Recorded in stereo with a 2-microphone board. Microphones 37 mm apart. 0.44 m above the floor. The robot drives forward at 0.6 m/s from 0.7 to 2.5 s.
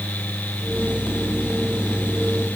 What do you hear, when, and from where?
Only background noise.